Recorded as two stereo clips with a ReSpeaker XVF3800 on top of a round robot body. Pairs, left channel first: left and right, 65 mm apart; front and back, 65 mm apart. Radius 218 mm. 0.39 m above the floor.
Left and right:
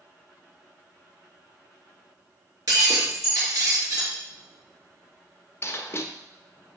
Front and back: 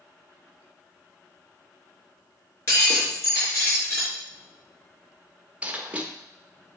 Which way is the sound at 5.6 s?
120° left.